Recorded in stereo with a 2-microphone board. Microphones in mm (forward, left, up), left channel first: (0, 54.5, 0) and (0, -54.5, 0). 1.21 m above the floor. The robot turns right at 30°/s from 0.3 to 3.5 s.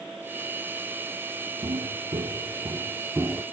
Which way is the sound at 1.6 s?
55° right (ahead or behind).